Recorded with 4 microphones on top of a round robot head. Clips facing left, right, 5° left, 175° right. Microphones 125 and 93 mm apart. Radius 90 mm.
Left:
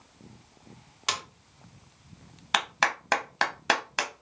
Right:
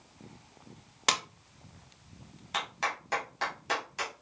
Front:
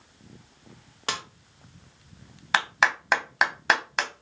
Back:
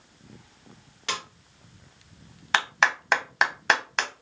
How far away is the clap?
About 0.6 m.